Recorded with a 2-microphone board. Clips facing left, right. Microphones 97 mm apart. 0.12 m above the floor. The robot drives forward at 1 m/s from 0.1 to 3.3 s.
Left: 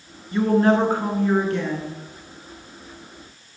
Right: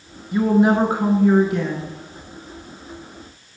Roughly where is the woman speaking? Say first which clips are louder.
Right 1 dB; centre.